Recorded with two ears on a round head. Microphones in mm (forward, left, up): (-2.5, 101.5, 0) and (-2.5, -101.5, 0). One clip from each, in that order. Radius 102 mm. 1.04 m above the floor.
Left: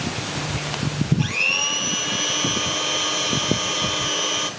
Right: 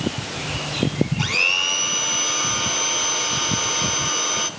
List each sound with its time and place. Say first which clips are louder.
1.2 s a blender: right 2 dB; 40° right (ahead or behind), 1.5 m